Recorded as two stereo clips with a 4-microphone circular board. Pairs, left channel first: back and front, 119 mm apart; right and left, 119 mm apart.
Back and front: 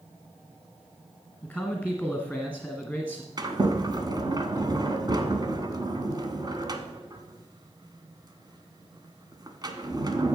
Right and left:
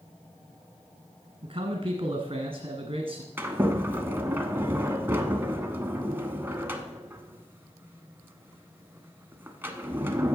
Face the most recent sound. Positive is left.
turn(degrees=25)